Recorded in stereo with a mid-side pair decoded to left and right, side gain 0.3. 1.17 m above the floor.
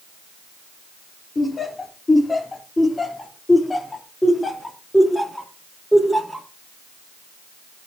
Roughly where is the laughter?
Ahead left.